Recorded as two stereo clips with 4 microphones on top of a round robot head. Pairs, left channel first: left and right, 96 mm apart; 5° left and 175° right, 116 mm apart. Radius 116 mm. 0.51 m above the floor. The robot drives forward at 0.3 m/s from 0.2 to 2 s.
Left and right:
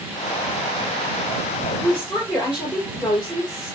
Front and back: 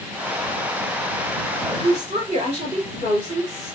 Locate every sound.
1.8 s a woman speaking: straight behind, 2.5 m